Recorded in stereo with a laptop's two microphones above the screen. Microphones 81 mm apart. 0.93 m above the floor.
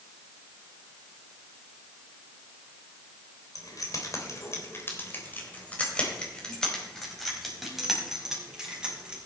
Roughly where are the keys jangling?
Left.